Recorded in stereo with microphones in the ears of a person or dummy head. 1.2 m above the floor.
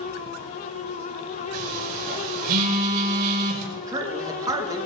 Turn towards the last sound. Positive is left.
turn(degrees=-20)  # may be behind; listen again after turning